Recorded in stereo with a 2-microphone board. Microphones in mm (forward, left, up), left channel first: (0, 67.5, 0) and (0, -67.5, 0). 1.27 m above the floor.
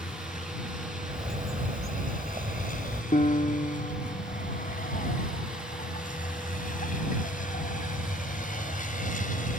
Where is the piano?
70° left (ahead or behind).